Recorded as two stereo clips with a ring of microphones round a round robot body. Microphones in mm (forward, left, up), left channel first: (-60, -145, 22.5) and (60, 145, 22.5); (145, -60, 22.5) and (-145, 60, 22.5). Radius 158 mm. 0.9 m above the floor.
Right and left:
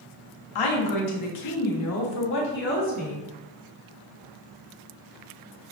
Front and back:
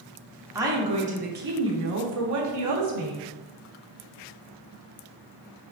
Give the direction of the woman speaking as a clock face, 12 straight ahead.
4 o'clock.